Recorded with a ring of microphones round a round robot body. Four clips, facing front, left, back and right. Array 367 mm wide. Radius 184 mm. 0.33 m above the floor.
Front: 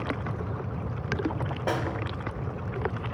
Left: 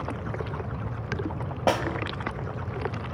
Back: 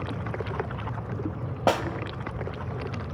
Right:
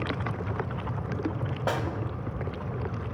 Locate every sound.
1.7 s a snare drum: 155° left, 0.6 m